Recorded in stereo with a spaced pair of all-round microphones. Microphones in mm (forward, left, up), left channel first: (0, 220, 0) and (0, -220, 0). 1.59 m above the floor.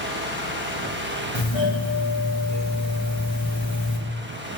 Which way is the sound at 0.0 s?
25° right (ahead or behind).